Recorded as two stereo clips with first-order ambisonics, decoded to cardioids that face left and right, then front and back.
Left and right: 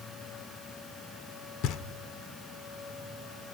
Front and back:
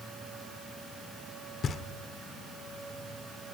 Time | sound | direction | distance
1.6 | knocking | 60° left | 0.9 m